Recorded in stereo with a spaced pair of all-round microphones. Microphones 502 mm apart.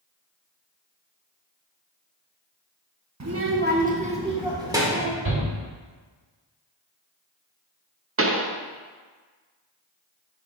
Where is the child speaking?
35° right (ahead or behind), 0.7 m; by 5.2 s 5° right (ahead or behind), 2 m.